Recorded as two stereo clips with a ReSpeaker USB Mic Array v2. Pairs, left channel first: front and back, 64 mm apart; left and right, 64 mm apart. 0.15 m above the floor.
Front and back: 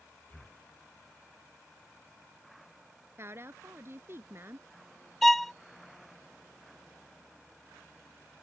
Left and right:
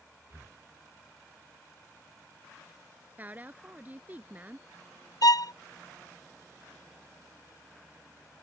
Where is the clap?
I don't hear a clap.